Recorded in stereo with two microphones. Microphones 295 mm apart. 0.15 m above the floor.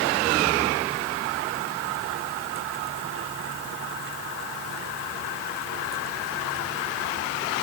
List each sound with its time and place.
Only background noise.